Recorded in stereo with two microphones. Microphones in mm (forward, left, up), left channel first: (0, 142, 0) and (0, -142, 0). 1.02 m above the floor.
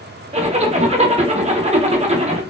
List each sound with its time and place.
0.3 s a zipper: 25° right (ahead or behind), 0.5 m